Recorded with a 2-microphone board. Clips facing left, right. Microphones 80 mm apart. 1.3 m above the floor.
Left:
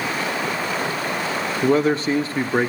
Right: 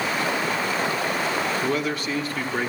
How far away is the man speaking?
About 0.6 m.